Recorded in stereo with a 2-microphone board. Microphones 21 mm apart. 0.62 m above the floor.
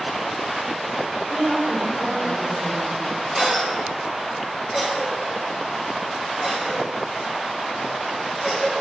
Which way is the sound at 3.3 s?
30° right (ahead or behind).